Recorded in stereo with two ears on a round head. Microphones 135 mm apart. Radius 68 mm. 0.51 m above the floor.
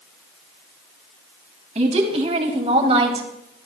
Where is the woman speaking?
45° right (ahead or behind), 3.5 m; by 3.6 s 35° right (ahead or behind), 2.5 m.